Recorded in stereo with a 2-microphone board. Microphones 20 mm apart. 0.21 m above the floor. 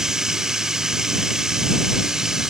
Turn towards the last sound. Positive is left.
turn(degrees=-25)  # may be behind; listen again after turning